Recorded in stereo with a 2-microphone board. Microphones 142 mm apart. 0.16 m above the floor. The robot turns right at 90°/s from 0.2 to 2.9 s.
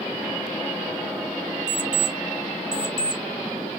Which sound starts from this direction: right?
An alarm clock, at 1.7 s.